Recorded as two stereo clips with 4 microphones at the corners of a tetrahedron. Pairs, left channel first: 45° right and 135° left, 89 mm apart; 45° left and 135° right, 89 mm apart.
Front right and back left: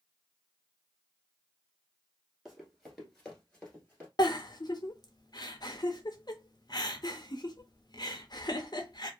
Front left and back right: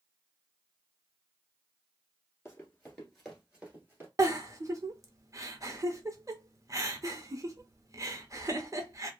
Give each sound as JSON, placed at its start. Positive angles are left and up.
{"t": 2.5, "sound": "running footsteps", "azimuth_deg": 60, "distance_m": 1.7}
{"t": 4.2, "sound": "a giggle", "azimuth_deg": -85, "distance_m": 0.6}